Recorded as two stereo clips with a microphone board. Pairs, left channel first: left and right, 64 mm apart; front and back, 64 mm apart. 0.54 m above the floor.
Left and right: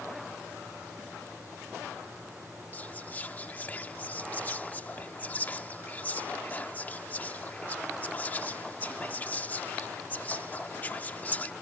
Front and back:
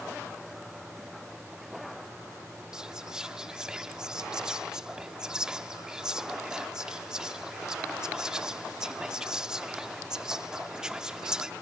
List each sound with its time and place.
2.7 s whispering: 115° left